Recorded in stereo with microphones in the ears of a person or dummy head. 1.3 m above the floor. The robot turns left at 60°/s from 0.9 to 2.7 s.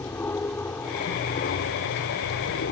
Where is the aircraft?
165° left; by 2.7 s 60° left.